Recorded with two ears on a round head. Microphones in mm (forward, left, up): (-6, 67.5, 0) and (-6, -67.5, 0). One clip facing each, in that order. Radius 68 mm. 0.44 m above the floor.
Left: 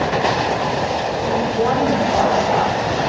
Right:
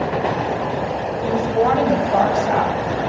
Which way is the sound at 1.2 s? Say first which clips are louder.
Right 2 dB; 60° right (ahead or behind).